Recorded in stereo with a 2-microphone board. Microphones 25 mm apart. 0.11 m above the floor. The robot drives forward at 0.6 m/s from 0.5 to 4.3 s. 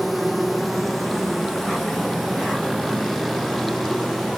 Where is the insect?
Centre (ahead or behind), 0.8 m.